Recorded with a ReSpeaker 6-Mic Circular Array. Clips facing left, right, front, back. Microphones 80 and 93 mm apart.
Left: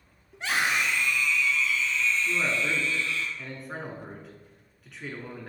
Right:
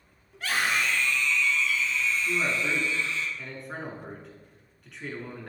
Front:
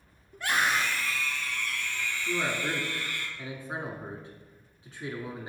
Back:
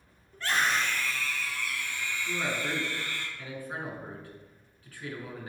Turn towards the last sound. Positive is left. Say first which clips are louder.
# even, front 2 dB
turn(degrees=0)